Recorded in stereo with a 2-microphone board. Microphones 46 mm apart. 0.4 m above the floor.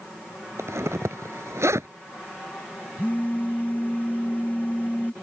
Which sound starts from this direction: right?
A zipper, at 0.6 s.